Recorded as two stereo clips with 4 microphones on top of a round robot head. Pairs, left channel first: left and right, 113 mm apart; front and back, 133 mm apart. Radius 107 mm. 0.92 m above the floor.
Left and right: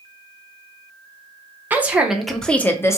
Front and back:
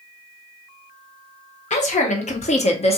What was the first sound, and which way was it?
A woman speaking, 20° right.